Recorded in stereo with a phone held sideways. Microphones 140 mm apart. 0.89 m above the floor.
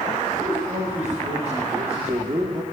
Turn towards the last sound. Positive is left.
turn(degrees=-30)  # may be behind; listen again after turning